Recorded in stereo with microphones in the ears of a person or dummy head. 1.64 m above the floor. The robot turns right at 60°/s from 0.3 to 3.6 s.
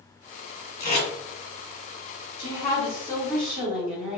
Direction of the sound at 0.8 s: 50° left (ahead or behind).